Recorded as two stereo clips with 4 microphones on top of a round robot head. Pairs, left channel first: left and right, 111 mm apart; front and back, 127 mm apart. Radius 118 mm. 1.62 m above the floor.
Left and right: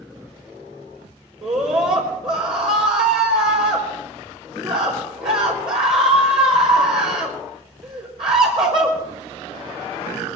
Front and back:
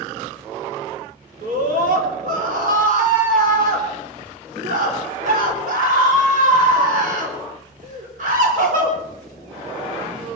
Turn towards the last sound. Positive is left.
turn(degrees=-145)